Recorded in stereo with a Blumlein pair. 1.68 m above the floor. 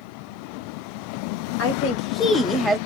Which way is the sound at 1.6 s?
45° left.